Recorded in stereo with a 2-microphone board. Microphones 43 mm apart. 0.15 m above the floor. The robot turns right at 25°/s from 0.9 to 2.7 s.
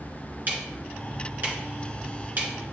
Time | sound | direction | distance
0.5 | ticking | 45° right (ahead or behind) | 2.5 m